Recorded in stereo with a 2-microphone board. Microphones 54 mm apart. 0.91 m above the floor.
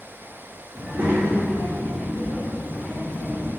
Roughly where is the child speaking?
Right.